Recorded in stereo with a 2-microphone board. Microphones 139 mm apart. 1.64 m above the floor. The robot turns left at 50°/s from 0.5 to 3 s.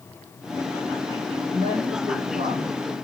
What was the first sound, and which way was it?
A woman speaking, 40° right.